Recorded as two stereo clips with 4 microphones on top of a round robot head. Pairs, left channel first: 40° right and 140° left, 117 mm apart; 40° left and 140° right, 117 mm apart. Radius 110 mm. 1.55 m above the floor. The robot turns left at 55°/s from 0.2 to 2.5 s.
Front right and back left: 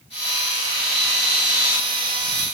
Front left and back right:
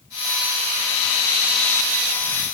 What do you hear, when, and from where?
Only background noise.